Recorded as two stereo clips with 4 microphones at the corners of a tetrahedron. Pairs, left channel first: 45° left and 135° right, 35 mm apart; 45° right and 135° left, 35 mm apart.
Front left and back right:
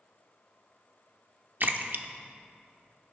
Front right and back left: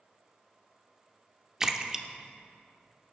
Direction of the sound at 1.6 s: 155° right.